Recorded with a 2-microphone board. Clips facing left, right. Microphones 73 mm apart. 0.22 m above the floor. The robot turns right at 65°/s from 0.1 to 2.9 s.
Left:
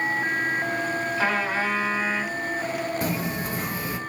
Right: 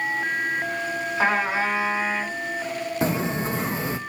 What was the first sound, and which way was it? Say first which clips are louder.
A trumpet: right 4 dB; 15° right (ahead or behind).